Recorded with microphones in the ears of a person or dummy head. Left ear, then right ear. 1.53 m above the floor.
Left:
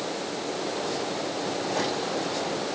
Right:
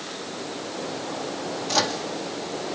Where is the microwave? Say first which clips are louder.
Right 7 dB; 70° right (ahead or behind), 2.0 m.